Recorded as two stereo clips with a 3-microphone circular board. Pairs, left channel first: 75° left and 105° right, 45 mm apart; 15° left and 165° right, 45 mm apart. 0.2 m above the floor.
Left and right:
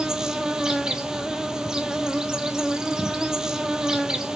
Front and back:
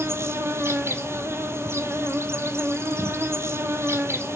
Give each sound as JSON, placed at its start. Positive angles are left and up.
{"t": 0.0, "sound": "an insect", "azimuth_deg": 180, "distance_m": 0.7}